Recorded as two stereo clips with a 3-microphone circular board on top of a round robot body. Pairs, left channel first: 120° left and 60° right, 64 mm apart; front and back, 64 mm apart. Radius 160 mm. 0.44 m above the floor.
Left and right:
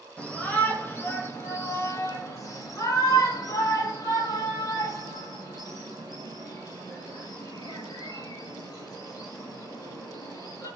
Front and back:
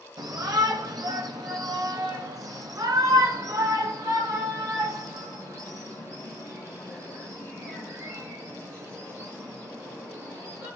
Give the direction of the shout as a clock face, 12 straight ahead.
6 o'clock.